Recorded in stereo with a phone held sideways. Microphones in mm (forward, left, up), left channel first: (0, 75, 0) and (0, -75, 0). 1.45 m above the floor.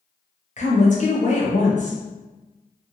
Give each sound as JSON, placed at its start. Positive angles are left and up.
{"t": 0.6, "sound": "a woman speaking", "side_deg": 55, "distance_m": 0.9}